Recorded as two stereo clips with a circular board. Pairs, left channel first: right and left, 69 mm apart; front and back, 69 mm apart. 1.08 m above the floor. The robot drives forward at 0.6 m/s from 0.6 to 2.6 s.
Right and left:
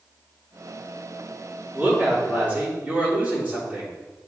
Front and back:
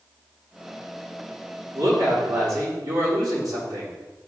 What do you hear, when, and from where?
1.7 s a woman speaking: 160° left, 3 m; by 3.9 s 165° left, 3.5 m